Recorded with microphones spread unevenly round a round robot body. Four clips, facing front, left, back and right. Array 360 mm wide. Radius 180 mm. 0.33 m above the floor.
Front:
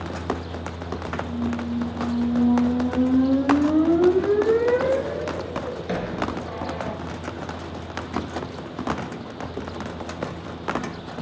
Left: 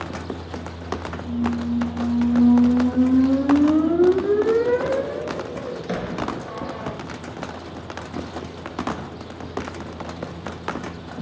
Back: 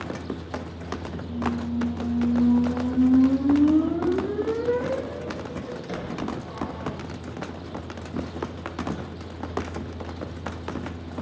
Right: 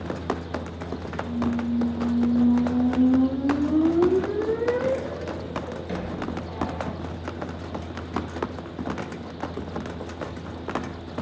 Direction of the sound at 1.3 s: 65° left.